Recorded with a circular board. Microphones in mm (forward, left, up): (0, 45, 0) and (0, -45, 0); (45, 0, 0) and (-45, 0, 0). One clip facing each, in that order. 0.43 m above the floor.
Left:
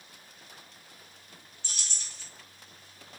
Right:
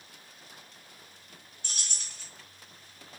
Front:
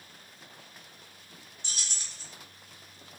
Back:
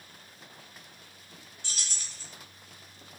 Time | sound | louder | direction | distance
1.6 | keys jangling | right 1 dB, even | 70° right | 1.1 m